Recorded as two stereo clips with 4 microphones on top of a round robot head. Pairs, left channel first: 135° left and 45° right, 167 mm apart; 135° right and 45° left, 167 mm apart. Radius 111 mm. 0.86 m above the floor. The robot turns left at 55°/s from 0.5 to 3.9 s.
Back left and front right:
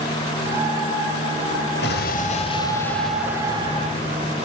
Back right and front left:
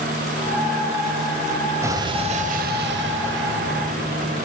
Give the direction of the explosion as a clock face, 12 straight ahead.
8 o'clock.